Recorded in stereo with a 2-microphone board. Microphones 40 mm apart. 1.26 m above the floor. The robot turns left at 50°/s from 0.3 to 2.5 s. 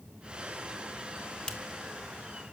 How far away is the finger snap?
About 1.4 m.